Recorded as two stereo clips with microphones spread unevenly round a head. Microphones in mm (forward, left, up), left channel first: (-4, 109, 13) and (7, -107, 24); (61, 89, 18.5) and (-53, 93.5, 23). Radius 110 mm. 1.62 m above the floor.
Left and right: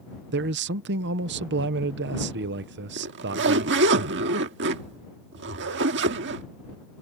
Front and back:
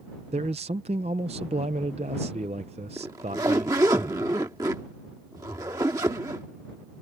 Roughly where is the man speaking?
Behind right.